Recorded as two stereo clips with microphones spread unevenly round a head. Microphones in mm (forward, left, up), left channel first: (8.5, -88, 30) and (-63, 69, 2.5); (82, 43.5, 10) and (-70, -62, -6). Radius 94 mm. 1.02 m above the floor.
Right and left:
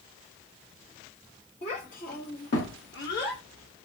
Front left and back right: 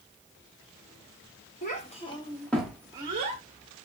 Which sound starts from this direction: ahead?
A child speaking, at 1.6 s.